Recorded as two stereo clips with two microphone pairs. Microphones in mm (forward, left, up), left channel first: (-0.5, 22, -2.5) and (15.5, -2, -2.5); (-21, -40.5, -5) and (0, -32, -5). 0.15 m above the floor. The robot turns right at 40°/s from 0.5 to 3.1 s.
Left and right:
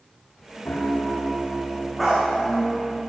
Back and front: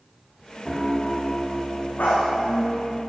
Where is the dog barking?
145° right, 4.5 m; by 2.3 s 135° right, 4.5 m.